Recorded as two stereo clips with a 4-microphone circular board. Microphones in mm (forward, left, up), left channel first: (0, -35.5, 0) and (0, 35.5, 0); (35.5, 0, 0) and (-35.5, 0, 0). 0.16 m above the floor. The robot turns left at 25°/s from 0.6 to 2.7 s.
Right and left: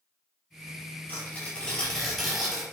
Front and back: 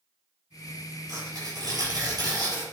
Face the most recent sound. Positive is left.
turn(degrees=170)